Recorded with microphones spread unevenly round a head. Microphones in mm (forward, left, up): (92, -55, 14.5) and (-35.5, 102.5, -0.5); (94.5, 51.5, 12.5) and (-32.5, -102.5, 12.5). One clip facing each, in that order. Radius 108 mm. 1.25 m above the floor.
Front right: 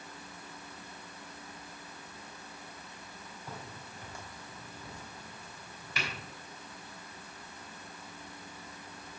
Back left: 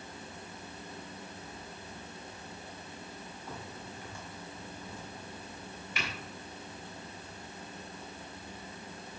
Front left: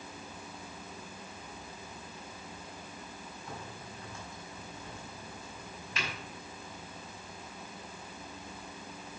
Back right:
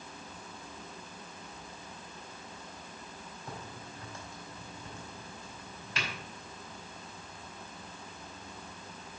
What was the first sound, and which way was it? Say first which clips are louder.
A crack: back left 1 dB, back right 1 dB; 110° right.